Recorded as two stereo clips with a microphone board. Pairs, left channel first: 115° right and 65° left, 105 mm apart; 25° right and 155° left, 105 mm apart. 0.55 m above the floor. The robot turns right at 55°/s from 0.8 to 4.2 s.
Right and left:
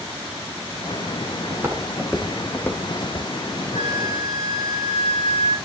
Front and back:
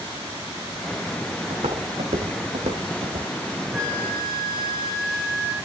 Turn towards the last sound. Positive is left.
turn(degrees=-80)